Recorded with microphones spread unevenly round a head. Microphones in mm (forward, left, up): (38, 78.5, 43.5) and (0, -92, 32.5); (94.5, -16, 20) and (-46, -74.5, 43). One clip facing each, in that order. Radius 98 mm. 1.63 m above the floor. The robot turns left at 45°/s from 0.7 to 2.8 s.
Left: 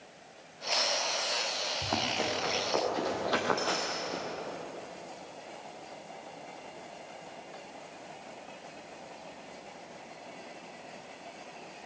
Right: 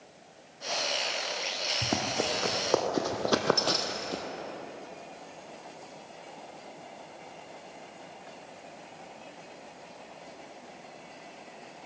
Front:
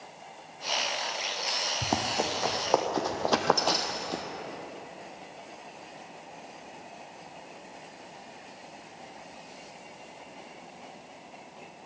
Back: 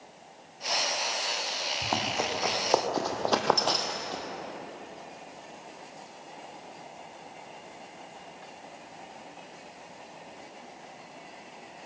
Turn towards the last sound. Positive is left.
turn(degrees=-55)